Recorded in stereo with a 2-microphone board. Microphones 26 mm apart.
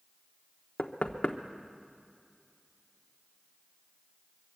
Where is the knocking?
55° left (ahead or behind), 1.1 m.